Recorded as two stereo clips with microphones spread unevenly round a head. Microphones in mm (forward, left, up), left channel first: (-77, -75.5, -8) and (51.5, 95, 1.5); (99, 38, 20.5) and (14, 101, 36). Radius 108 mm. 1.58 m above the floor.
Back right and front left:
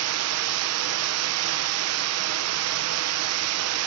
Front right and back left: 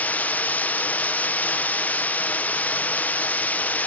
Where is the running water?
40° left, 1.0 m.